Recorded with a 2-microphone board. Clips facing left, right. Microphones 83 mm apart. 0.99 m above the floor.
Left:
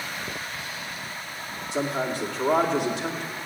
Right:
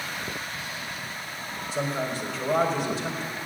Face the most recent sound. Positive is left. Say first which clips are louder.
# left 2 dB
turn(degrees=65)  # may be behind; listen again after turning